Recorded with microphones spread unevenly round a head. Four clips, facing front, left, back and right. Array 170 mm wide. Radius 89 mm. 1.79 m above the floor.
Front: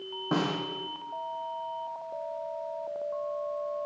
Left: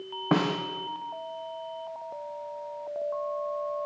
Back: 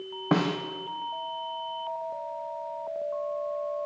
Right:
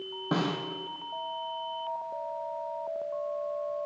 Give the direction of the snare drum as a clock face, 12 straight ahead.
7 o'clock.